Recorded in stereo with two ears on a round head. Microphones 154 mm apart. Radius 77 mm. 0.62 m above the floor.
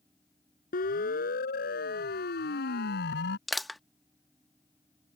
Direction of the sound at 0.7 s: 55° left (ahead or behind).